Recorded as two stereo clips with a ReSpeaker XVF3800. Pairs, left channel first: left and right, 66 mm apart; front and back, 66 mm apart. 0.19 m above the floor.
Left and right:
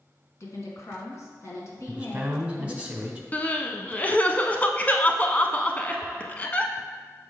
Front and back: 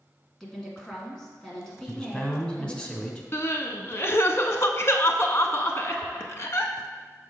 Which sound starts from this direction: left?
A woman speaking, at 0.4 s.